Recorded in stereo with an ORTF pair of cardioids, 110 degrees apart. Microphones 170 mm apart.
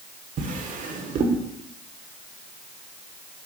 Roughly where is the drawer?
Ahead right.